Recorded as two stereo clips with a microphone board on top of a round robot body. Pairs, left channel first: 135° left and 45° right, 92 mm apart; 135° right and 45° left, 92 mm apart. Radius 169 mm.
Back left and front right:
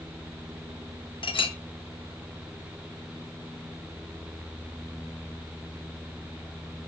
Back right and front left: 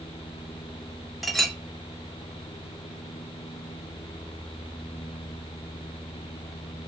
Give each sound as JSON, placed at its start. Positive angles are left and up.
{"t": 1.2, "sound": "a clink", "azimuth_deg": 135, "distance_m": 1.2}